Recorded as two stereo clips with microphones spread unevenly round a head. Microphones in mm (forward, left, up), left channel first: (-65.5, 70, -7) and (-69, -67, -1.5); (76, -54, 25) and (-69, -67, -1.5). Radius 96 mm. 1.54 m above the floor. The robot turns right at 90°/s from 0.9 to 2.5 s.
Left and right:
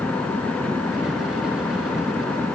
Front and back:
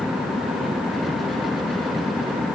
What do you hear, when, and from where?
Only background noise.